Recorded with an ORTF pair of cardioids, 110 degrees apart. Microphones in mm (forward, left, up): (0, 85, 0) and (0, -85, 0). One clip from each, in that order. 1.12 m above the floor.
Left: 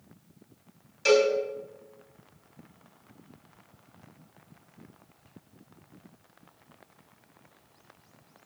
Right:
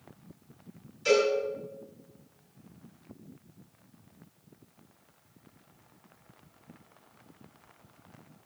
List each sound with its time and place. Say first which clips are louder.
1.1 s a cowbell: left 3 dB; 65° left, 2.5 m